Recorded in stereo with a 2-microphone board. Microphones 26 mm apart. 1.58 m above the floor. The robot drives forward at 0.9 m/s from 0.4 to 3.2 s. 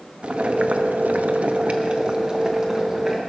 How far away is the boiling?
About 0.9 m.